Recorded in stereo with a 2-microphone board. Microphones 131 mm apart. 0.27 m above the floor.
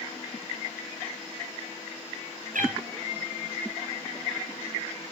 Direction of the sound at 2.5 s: 80° right.